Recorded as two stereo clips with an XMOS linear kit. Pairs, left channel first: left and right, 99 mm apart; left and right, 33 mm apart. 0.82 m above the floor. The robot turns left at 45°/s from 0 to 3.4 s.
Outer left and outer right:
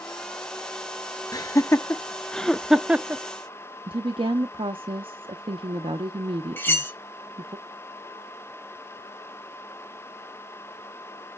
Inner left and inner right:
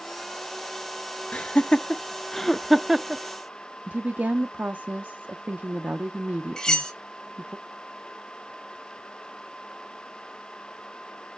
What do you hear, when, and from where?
1.3 s laughter: 35° left (ahead or behind), 0.6 m; by 3.2 s 20° right (ahead or behind), 0.6 m
3.9 s a woman speaking: 60° right (ahead or behind), 0.7 m
6.6 s cutlery clinking: 20° left (ahead or behind), 1.1 m